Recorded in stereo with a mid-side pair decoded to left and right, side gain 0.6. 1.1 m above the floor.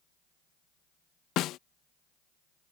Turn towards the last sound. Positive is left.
turn(degrees=60)